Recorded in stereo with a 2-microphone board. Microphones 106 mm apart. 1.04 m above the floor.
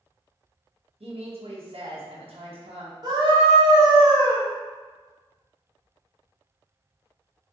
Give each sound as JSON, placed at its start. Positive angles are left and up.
{"t": 1.0, "sound": "a woman speaking", "side_deg": -70, "distance_m": 1.0}
{"t": 3.0, "sound": "a scream", "side_deg": -40, "distance_m": 1.4}